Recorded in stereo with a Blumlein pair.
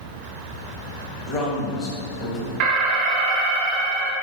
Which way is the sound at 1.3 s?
25° left.